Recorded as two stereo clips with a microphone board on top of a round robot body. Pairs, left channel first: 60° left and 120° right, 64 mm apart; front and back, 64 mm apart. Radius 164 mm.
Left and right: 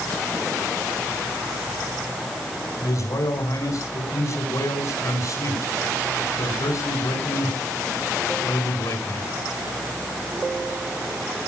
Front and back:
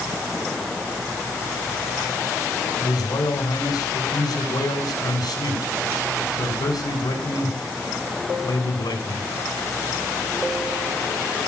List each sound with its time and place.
2.8 s a man speaking: 20° left, 6 m